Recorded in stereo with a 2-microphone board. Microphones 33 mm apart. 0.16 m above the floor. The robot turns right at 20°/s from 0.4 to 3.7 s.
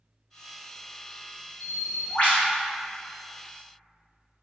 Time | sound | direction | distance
1.6 | a bird | 50° left (ahead or behind) | 2.0 m